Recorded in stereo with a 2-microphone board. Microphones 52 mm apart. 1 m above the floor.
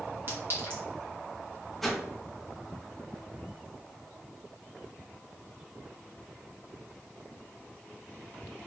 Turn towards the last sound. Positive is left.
turn(degrees=0)  # may be behind; listen again after turning